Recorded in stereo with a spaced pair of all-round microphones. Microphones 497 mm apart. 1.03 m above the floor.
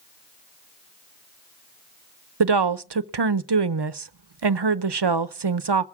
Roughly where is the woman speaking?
Right.